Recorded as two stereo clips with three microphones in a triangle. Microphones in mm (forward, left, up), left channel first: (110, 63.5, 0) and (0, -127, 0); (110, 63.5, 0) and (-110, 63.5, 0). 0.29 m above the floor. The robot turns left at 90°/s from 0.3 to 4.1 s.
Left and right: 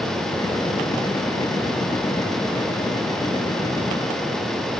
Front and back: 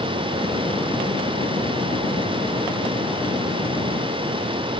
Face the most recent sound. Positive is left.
No sound to turn to.